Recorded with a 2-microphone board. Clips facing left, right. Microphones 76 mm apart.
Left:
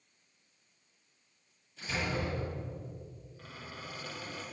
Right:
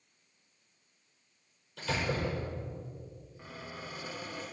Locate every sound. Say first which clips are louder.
1.8 s a door slam: right 2 dB; 85° right, 6.5 m
3.4 s a squeak: right 2 dB; 15° right (ahead or behind), 5 m